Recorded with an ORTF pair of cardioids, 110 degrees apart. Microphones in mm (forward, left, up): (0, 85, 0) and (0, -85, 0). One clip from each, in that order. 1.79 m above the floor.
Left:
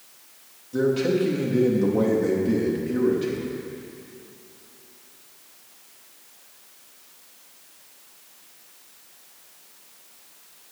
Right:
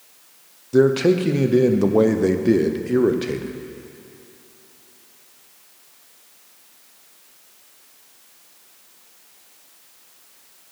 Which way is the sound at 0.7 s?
45° right.